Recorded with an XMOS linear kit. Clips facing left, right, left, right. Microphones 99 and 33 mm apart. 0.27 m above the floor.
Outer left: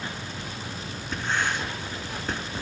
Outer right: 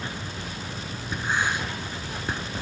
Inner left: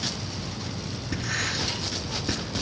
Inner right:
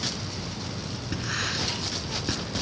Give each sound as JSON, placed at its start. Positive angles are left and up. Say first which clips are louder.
{"t": 1.1, "sound": "writing", "louder": "outer right 1 dB, inner left 1 dB", "side_deg": -10, "distance_m": 2.5}